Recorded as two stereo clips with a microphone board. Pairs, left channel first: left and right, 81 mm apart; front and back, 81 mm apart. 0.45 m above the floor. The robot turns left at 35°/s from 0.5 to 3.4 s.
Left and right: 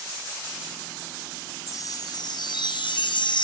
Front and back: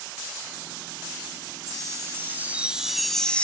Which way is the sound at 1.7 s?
135° left.